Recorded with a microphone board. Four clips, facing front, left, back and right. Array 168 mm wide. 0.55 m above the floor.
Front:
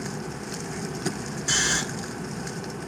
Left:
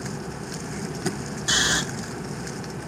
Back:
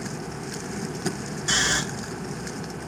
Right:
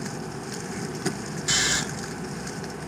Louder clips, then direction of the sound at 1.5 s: Left 3 dB, back 2 dB; 120° left.